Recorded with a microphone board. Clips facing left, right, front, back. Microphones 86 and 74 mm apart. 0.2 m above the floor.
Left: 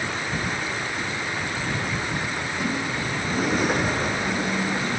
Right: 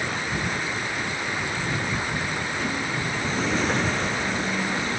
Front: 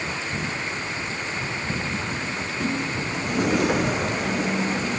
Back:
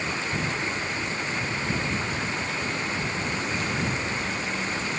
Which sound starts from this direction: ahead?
A sliding door, at 2.3 s.